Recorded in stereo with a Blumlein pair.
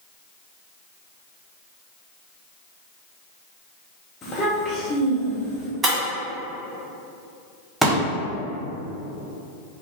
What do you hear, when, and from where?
4.2 s a child speaking: 20° left, 0.9 m
5.8 s breaking glass: 20° right, 1.8 m
7.8 s a pop: 10° right, 1.0 m